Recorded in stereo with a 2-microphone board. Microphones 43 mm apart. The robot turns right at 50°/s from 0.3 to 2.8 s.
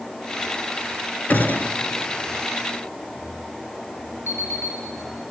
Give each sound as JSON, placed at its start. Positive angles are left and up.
{"t": 1.3, "sound": "a gunshot", "side_deg": 40, "distance_m": 1.2}
{"t": 4.3, "sound": "an alarm clock", "side_deg": 75, "distance_m": 3.0}